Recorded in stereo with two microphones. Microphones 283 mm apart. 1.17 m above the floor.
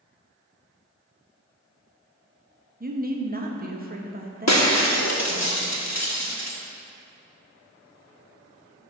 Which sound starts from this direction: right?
A woman speaking, at 2.8 s.